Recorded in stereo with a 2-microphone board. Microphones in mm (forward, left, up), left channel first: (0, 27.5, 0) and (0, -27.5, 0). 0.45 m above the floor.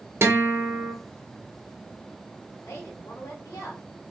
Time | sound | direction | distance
0.2 | a guitar | 50° right (ahead or behind) | 1.1 m
2.6 | a woman speaking | 60° left (ahead or behind) | 2 m